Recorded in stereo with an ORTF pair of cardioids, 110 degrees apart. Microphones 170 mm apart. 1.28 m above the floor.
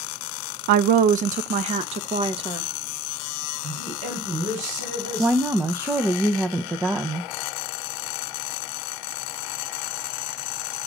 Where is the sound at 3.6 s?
50° right, 4.5 m.